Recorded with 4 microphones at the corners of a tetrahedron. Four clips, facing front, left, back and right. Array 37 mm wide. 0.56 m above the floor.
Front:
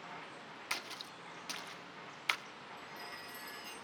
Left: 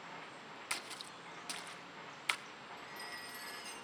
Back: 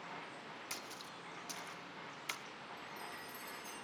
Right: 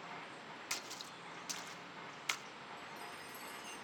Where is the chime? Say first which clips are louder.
Left 4 dB, front 2 dB; 60° left, 7 m.